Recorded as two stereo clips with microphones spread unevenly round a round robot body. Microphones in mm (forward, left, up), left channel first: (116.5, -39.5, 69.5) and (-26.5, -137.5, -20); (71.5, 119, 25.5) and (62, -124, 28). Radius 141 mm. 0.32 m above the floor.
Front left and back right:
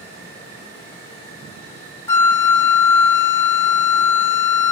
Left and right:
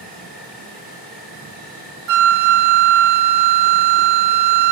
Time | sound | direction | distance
0.0 | an insect | 95° left | 4 m
2.1 | a flute | 50° right | 0.6 m